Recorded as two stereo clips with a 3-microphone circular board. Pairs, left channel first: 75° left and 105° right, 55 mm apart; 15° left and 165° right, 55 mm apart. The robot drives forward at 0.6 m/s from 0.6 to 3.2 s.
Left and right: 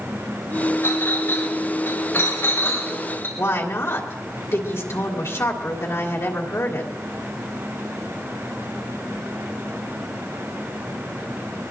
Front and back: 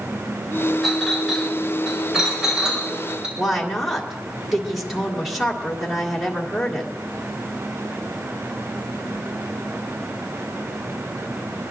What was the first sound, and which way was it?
A clink, 105° left.